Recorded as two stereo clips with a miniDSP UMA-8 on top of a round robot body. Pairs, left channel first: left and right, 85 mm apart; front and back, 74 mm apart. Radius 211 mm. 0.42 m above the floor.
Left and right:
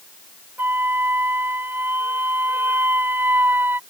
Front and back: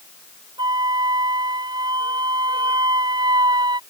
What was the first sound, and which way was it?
A flute, 155° right.